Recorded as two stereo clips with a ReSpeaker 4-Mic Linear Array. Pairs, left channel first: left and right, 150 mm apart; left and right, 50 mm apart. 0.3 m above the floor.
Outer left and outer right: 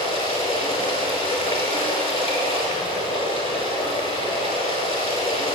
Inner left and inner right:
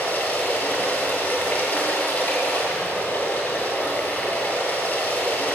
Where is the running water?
40° left (ahead or behind), 1.4 m.